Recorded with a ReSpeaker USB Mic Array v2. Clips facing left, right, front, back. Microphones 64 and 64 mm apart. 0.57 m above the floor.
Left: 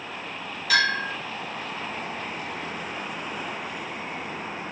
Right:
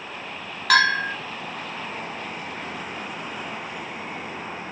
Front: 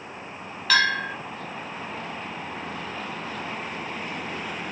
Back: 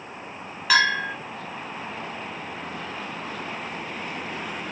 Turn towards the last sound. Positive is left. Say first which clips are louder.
# right 4 dB, back 1 dB
turn(degrees=-105)